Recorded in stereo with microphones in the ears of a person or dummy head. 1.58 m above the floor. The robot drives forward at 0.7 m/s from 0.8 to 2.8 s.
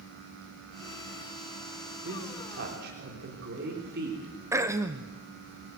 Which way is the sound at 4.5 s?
10° right (ahead or behind).